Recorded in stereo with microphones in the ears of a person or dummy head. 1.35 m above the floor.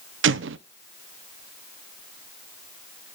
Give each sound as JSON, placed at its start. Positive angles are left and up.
{"t": 0.2, "sound": "an explosion", "side_deg": -65, "distance_m": 0.6}